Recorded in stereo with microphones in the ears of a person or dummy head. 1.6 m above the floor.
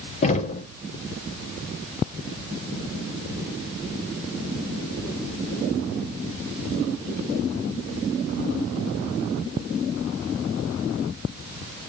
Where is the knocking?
40° left (ahead or behind), 1.0 m.